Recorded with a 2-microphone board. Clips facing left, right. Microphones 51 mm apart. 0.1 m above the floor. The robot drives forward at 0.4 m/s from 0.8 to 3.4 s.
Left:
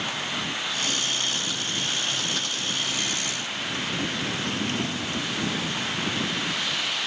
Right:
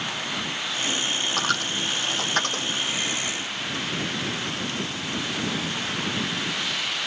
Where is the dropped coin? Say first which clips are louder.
Right 4 dB; 65° right (ahead or behind); by 2.7 s 50° right (ahead or behind).